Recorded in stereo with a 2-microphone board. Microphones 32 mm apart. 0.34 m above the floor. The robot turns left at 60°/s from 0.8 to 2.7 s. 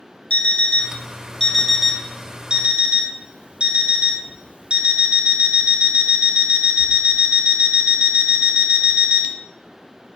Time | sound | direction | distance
0.3 | an alarm clock | 60° left | 0.7 m